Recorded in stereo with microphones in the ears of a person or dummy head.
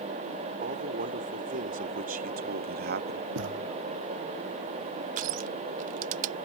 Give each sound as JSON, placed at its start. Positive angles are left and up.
{"t": 0.6, "sound": "a man speaking", "side_deg": -40}
{"t": 3.4, "sound": "a thud", "side_deg": -65}
{"t": 5.2, "sound": "crushing", "side_deg": -40}